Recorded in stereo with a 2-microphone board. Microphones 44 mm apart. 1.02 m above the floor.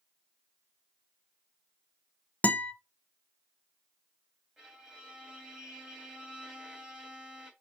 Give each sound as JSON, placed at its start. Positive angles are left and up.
{"t": 2.4, "sound": "a guitar", "side_deg": 35, "distance_m": 0.8}
{"t": 4.6, "sound": "a violin", "side_deg": -15, "distance_m": 2.0}